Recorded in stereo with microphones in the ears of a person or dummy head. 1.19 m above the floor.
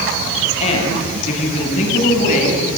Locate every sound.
0.6 s a woman speaking: 35° left (ahead or behind), 7 m; by 2.6 s 40° left (ahead or behind), 8 m